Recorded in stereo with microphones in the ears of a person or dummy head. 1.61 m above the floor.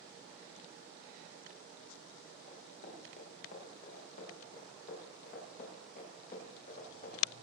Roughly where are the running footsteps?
Left.